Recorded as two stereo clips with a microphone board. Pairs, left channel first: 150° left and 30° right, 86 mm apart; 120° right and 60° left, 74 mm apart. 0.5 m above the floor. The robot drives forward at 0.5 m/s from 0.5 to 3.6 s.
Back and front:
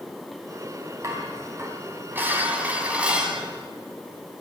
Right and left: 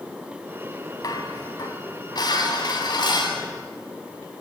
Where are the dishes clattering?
85° right, 2.5 m; by 3.4 s 110° right, 3 m.